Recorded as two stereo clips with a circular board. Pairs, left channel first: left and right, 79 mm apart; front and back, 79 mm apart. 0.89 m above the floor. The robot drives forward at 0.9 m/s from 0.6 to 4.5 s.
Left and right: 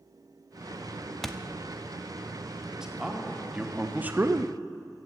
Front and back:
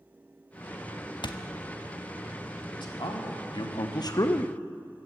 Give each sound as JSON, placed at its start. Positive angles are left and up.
{"t": 1.2, "sound": "a thud", "azimuth_deg": 5, "distance_m": 0.6}
{"t": 2.7, "sound": "a man speaking", "azimuth_deg": -10, "distance_m": 1.9}